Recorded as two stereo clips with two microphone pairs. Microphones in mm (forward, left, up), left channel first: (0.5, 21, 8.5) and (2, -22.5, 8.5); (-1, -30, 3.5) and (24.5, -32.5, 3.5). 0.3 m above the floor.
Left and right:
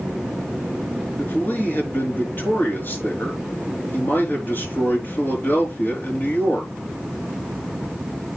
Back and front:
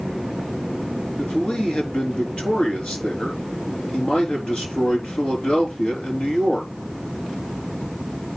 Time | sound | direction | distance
1.2 | a man speaking | 130° left | 4.5 m